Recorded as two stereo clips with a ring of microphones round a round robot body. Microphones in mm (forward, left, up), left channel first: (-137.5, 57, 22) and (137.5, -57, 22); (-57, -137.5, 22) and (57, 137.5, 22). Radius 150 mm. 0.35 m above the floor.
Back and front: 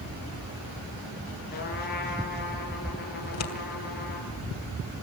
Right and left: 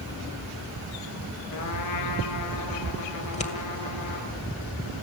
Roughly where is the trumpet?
Behind right.